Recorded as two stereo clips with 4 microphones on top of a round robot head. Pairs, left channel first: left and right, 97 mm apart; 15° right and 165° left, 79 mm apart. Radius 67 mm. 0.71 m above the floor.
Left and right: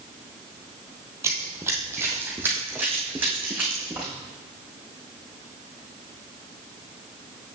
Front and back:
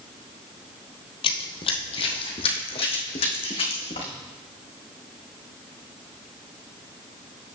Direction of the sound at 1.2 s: 20° right.